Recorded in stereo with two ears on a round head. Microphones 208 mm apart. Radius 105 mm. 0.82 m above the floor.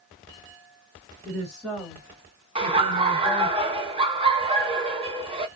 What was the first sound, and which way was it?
A woman speaking, centre (ahead or behind).